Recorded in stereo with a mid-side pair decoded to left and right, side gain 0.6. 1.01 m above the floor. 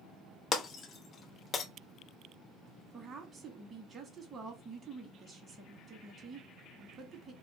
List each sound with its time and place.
0.5 s breaking glass: 40° left, 0.5 m
2.9 s a woman speaking: 35° right, 1.0 m